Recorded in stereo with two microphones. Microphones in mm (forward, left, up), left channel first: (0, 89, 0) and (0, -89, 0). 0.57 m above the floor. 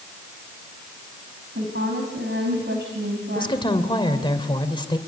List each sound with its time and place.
1.6 s a woman speaking: 75° right (ahead or behind), 4 m
3.4 s a woman speaking: 25° left (ahead or behind), 2.5 m